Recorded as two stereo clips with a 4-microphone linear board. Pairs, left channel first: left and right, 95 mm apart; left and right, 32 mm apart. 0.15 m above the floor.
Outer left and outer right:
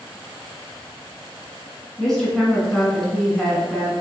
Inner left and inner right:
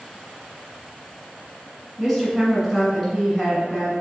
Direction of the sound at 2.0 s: 5° left (ahead or behind).